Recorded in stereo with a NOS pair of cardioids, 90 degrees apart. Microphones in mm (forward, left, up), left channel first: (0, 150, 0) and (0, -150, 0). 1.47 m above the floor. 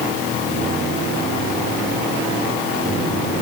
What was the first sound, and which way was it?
Only background noise.